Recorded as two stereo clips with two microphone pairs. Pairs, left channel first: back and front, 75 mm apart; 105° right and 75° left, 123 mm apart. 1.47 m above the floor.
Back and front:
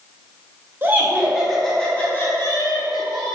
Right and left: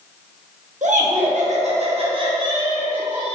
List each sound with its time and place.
0.8 s laughter: 60° left, 1.2 m; by 3.3 s 145° left, 1.6 m